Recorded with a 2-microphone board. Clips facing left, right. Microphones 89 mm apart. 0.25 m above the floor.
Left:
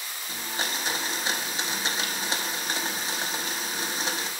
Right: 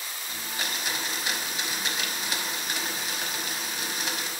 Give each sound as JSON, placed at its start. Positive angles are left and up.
{"t": 0.3, "sound": "a blender", "side_deg": 30, "distance_m": 0.8}